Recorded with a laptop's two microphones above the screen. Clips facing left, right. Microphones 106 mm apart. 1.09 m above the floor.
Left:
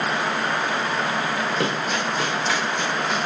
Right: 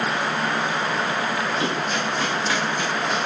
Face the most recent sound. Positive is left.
turn(degrees=65)  # may be behind; listen again after turning